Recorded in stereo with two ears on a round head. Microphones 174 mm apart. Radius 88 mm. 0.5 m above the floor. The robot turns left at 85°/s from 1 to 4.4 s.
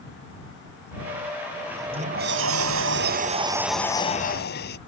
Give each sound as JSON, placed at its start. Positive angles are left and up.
{"t": 1.7, "sound": "a sliding door", "azimuth_deg": -5}